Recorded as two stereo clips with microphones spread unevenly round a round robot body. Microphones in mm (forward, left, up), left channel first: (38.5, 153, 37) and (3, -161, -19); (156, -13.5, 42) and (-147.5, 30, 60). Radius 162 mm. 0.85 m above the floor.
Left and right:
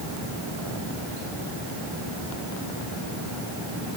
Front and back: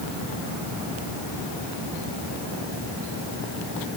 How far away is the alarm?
No alarm in this recording.